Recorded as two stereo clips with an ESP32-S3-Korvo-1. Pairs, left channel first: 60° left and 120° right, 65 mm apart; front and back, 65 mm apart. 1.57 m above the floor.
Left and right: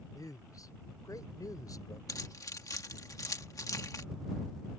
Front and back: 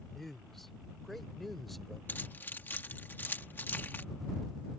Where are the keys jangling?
55° left.